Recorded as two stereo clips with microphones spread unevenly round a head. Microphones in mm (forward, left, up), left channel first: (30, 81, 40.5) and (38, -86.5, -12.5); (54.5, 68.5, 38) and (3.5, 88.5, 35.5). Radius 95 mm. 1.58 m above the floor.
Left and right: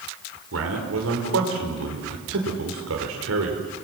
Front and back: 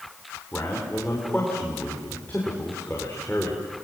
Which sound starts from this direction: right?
A man speaking, at 0.5 s.